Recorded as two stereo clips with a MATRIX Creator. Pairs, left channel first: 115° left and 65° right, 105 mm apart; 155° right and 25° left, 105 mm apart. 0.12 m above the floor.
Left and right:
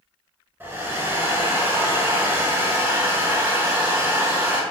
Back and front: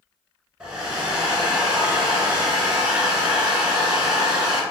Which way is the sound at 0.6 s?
45° right.